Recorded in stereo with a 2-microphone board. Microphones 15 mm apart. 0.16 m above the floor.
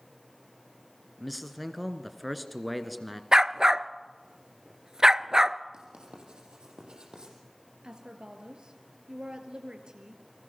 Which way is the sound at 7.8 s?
65° right (ahead or behind).